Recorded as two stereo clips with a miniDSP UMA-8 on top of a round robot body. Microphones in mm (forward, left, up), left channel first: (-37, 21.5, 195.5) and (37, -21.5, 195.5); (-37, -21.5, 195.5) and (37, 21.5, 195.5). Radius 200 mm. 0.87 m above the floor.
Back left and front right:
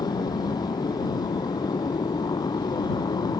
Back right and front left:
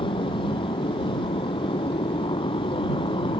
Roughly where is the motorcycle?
Behind.